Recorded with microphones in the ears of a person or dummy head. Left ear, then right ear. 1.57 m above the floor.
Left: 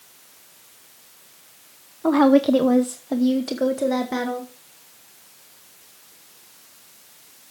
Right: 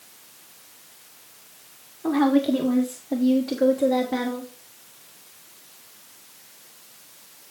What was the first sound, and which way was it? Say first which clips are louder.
A woman speaking: left 5 dB; 45° left (ahead or behind).